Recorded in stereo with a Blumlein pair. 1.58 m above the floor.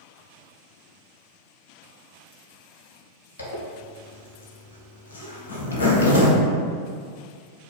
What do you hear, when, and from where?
3.4 s a zipper: 70° left, 0.8 m